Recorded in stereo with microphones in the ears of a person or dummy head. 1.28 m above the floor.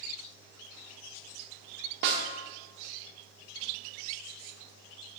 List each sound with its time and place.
2.0 s a snare drum: 60° right (ahead or behind), 1.4 m